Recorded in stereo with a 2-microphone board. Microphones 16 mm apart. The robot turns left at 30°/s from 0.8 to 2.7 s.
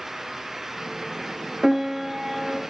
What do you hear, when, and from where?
1.6 s a piano: 25° right (ahead or behind), 0.8 m; by 2.6 s 10° right (ahead or behind), 0.8 m